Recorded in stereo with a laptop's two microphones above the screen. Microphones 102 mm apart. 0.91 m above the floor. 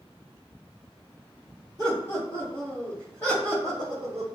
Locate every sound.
1.8 s laughter: 60° left (ahead or behind), 1.7 m; by 4.2 s 20° right (ahead or behind), 0.7 m